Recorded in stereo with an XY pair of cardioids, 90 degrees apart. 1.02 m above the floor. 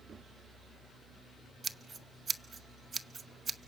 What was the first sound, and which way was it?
Scissors, 35° right.